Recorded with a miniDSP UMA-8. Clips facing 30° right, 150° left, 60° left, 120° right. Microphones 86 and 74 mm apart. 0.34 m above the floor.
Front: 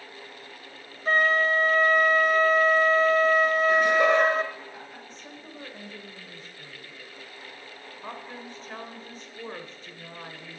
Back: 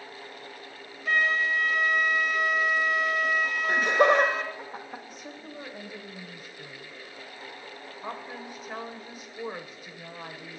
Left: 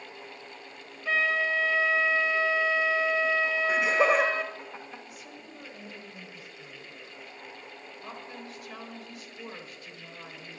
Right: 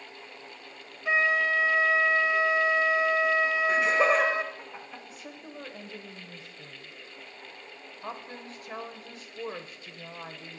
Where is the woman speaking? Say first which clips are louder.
Back 2 dB, right 2 dB; 135° right, 1.0 m.